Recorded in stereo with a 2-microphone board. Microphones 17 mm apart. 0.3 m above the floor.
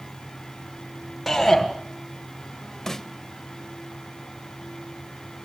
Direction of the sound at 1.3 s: 10° left (ahead or behind).